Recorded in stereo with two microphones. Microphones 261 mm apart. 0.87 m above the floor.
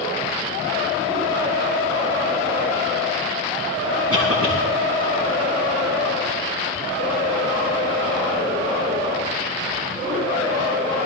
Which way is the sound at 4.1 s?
65° right (ahead or behind).